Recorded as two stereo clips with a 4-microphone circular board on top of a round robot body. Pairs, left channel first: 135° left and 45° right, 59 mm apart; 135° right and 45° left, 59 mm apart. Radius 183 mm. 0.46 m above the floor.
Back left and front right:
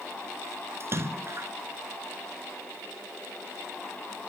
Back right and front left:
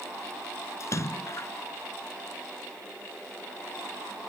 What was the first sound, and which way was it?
A splash, 95° right.